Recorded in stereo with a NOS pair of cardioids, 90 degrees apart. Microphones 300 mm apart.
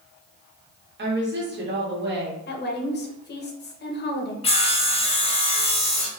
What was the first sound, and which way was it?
A woman speaking, 35° right.